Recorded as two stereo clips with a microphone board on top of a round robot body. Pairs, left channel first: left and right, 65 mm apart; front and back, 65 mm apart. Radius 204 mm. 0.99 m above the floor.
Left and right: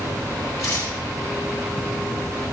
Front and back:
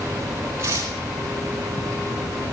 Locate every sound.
0.6 s tearing paper: 130° left, 8.5 m